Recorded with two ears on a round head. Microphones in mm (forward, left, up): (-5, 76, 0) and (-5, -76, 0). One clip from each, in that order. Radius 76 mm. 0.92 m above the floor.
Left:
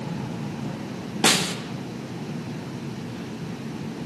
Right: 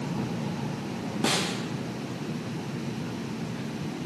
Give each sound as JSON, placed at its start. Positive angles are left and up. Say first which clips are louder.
{"t": 1.2, "sound": "a snare drum", "louder": "left 7 dB", "side_deg": 55, "distance_m": 0.5}